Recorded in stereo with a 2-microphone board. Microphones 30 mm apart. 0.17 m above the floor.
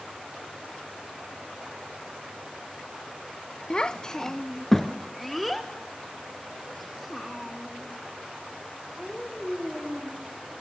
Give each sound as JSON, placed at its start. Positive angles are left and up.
{"t": 3.7, "sound": "a child speaking", "side_deg": 25, "distance_m": 0.6}